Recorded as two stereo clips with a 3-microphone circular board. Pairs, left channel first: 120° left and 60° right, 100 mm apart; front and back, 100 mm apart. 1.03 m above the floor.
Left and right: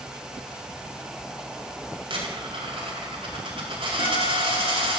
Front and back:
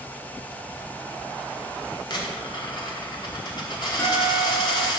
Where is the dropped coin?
40° right, 2 m.